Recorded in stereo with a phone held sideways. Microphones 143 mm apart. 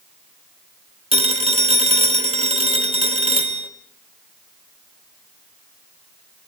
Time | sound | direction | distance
1.1 | a phone ringing | 45° right (ahead or behind) | 1.2 m